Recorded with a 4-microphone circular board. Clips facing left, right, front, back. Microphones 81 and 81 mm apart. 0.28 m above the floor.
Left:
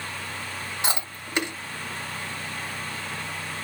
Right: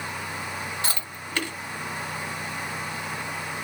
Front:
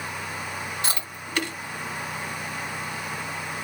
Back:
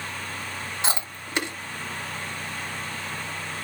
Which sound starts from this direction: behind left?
Chewing, at 0.8 s.